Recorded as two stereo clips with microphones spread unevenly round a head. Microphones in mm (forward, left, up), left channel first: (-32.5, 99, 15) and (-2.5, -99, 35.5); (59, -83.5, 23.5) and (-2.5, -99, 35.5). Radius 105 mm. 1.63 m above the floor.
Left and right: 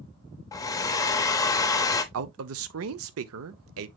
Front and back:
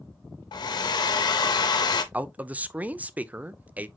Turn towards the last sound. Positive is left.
turn(degrees=-100)